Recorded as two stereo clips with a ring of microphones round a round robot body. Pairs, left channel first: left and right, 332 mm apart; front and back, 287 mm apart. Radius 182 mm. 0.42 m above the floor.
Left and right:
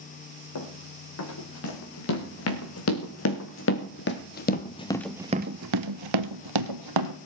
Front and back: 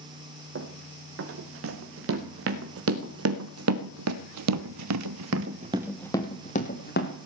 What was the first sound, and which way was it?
Running footsteps, 135° left.